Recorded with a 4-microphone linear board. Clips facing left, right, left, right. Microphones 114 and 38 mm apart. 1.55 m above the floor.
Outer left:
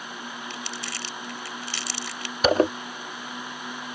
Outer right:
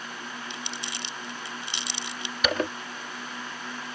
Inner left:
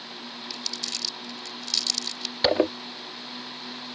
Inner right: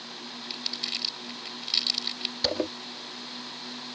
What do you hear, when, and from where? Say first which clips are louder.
0.5 s crumpling: outer left 2 dB, inner right 1 dB; 20° right (ahead or behind)
2.4 s a zipper: outer left 8 dB, inner left 8 dB; 35° left (ahead or behind)